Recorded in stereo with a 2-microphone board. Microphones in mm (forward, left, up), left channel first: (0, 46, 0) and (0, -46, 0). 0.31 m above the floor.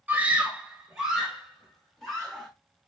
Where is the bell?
No bell in this recording.